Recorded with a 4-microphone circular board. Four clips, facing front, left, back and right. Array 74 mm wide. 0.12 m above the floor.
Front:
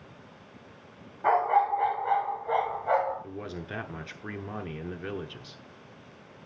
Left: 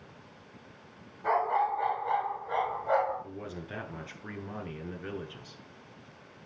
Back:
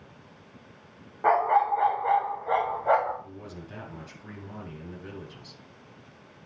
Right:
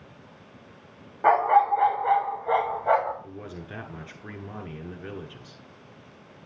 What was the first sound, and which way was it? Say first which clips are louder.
A dog barking: right 8 dB, back 1 dB; 115° right.